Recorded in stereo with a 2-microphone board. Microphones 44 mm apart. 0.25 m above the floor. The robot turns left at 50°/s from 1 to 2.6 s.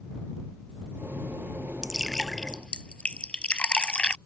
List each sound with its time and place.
1.8 s dripping: 15° right (ahead or behind); by 4.2 s 20° left (ahead or behind)